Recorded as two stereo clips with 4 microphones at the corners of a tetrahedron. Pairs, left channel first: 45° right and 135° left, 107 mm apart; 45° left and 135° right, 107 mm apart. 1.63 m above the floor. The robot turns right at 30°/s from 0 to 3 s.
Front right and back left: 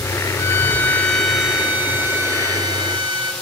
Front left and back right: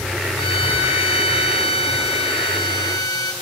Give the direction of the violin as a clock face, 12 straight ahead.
11 o'clock.